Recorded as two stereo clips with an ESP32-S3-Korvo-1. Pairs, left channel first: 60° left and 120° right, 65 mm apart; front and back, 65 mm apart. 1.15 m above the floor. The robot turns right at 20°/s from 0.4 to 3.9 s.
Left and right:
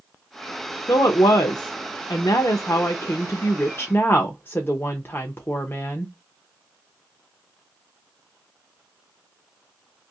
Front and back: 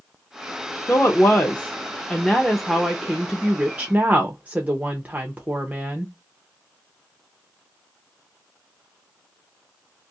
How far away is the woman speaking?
About 0.6 m.